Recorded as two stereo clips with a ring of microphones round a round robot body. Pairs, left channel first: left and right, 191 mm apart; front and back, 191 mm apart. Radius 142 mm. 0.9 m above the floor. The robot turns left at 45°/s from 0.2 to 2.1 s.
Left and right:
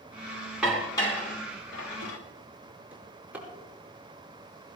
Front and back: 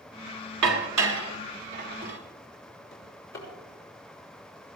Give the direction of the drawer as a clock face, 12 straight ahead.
12 o'clock.